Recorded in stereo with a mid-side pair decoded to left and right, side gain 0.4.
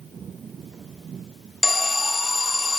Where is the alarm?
20° left, 0.8 m.